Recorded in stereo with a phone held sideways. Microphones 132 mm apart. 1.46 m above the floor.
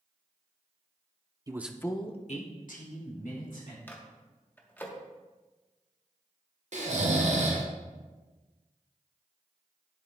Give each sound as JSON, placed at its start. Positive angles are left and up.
{"t": 1.5, "sound": "a man speaking", "side_deg": -25, "distance_m": 0.7}
{"t": 3.9, "sound": "a microwave", "side_deg": 15, "distance_m": 1.0}
{"t": 6.7, "sound": "snoring", "side_deg": -55, "distance_m": 1.2}